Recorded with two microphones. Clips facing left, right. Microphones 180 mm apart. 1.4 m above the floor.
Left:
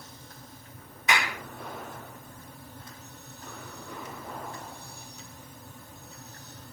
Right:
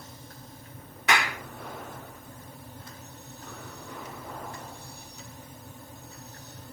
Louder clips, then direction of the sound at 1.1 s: Right 2 dB; 80° right.